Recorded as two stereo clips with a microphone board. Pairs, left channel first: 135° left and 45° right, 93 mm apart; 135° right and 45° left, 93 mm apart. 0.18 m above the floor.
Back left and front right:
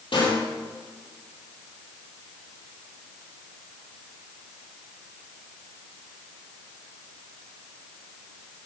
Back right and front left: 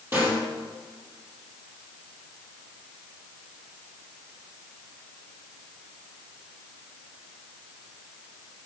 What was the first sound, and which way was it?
A snare drum, 110° left.